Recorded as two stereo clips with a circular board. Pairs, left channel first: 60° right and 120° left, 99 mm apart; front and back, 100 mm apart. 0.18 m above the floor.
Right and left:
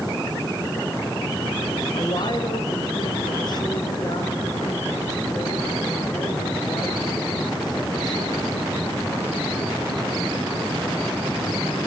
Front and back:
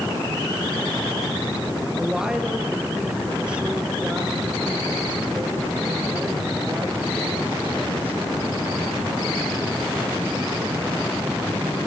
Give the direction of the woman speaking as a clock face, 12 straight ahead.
3 o'clock.